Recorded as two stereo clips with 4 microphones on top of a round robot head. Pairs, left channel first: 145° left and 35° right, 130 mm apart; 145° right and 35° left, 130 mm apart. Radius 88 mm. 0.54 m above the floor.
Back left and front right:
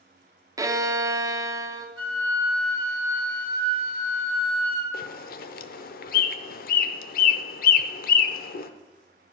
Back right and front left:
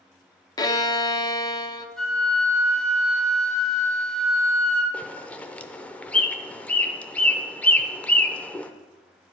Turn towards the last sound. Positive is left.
turn(degrees=135)